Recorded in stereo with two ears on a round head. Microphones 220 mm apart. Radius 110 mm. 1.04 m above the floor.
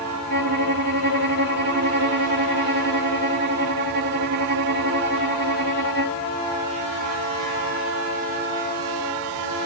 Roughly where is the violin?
Right.